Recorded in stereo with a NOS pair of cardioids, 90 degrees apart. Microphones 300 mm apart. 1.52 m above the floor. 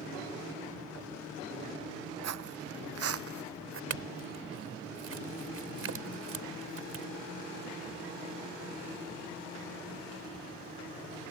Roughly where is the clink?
Ahead right.